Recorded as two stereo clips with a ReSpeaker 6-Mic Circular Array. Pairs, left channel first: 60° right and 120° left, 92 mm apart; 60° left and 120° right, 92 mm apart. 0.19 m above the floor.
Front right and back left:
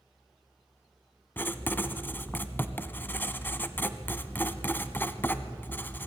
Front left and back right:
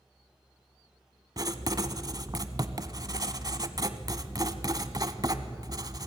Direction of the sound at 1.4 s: 120° right.